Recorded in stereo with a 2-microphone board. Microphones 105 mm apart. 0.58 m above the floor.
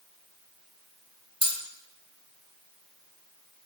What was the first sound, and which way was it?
Cutlery clinking, 60° right (ahead or behind).